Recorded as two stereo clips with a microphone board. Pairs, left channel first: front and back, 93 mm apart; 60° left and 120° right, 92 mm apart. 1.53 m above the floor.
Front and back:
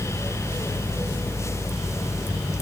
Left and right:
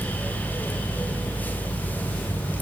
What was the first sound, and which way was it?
Only background noise.